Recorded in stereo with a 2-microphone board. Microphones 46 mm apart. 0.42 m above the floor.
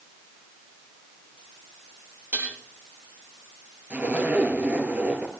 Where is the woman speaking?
I don't hear a woman speaking.